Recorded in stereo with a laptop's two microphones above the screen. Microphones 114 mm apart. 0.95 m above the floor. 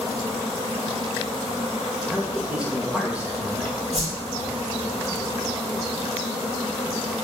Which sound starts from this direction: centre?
A man speaking, at 2.1 s.